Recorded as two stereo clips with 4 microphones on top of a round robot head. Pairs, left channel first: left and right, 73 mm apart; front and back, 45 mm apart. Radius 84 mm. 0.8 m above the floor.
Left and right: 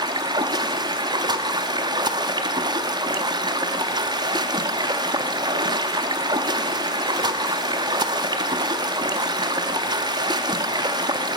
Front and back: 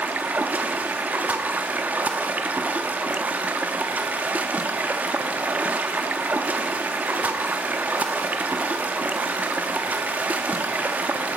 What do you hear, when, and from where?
0.0 s running water: 120° right, 0.9 m